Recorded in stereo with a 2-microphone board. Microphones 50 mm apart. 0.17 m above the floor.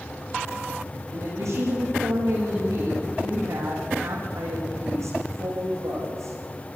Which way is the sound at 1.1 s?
80° right.